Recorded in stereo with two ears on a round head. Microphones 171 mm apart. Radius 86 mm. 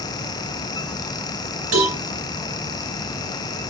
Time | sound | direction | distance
1.7 | a cowbell | 80° right | 2.5 m